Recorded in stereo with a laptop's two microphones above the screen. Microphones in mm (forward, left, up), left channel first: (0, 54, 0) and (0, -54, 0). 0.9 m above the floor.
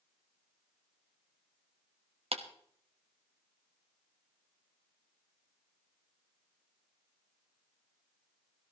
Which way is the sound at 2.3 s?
65° right (ahead or behind).